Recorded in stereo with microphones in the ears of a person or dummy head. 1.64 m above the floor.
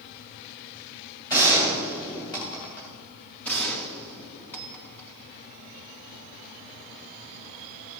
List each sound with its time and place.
1.3 s a gunshot: 15° left (ahead or behind), 3 m
3.4 s a gunshot: 5° left (ahead or behind), 1.6 m